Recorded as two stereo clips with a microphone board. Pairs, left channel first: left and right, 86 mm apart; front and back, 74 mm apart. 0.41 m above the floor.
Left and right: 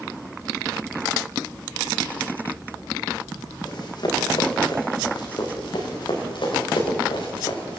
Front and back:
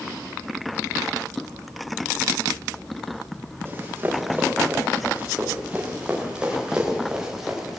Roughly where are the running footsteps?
Behind left.